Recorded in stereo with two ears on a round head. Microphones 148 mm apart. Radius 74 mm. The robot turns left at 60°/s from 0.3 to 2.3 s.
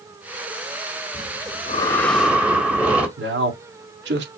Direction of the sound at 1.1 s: 60° left.